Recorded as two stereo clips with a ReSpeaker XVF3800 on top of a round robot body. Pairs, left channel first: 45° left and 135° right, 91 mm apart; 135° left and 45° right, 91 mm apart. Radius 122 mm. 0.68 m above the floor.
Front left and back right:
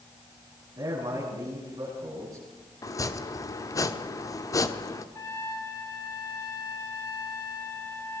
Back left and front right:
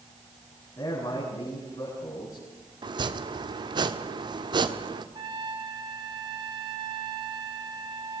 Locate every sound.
0.8 s a man speaking: straight behind, 8.5 m
2.8 s chopping: 10° right, 1.4 m
5.2 s a trumpet: 10° right, 3 m